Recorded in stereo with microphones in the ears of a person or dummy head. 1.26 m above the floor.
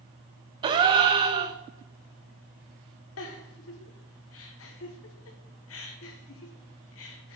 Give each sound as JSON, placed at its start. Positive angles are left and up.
{"t": 0.6, "sound": "a gasp", "side_deg": -25, "distance_m": 0.6}
{"t": 3.2, "sound": "a giggle", "side_deg": 60, "distance_m": 1.0}